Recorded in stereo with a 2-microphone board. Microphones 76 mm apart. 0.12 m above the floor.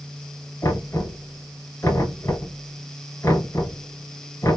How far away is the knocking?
About 1.9 m.